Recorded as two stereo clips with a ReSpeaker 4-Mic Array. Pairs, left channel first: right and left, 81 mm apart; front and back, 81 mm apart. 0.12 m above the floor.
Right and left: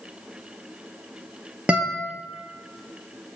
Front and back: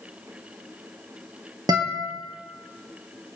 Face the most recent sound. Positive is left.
turn(degrees=160)